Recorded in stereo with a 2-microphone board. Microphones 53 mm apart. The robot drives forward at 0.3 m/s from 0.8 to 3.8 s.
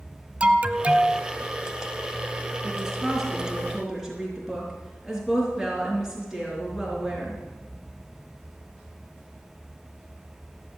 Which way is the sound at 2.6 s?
10° right (ahead or behind).